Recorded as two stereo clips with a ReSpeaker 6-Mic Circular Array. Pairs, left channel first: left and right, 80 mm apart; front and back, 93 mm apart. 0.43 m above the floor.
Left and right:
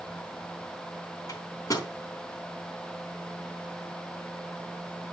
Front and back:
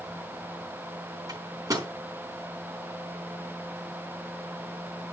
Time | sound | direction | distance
1.3 | a microwave | 130° left | 3.5 m